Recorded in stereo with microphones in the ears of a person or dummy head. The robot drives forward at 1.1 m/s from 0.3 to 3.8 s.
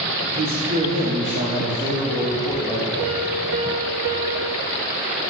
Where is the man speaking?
50° right (ahead or behind), 3.5 m; by 2.9 s 30° right (ahead or behind), 6 m.